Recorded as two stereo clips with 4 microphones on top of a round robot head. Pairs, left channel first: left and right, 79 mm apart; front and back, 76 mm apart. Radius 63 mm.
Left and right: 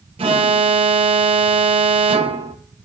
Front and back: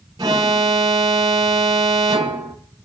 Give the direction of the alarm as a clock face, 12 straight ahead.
4 o'clock.